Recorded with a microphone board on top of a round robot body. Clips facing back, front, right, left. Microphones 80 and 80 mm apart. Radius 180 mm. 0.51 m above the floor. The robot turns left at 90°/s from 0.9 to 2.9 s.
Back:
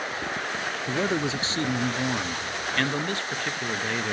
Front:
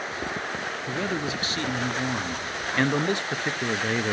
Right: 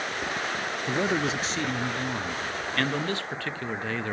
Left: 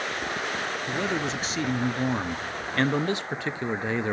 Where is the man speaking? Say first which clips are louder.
Back 3 dB, right 3 dB; 135° right, 0.7 m; by 4.1 s 45° left, 0.7 m.